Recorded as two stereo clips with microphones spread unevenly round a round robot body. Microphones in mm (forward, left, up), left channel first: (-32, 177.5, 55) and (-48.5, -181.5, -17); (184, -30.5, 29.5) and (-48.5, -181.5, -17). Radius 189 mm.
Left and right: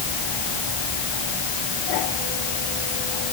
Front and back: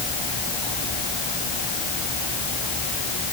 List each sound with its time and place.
Only background noise.